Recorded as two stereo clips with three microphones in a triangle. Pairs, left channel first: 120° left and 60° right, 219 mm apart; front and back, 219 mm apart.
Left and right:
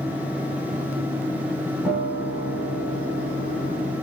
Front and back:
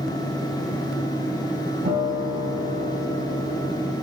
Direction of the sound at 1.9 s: 140° right.